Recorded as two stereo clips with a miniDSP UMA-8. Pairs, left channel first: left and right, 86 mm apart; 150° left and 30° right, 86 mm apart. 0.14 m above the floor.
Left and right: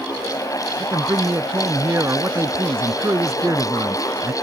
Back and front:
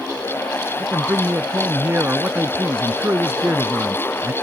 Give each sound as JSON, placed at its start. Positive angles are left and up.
{"t": 0.8, "sound": "a man speaking", "azimuth_deg": -70}